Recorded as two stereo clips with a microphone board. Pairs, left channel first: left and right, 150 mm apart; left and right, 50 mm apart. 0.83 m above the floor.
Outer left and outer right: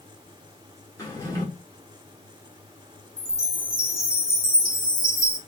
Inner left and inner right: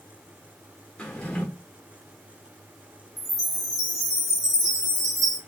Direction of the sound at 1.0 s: 20° left (ahead or behind).